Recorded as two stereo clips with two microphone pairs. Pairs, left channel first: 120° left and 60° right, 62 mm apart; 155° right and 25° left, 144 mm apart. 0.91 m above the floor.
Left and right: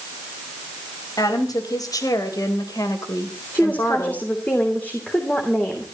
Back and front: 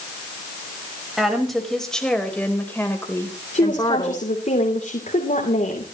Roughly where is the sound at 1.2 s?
Behind left.